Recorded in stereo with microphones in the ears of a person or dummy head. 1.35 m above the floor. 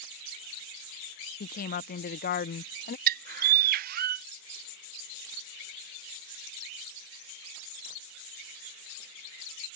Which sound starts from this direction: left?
A woman speaking, at 1.4 s.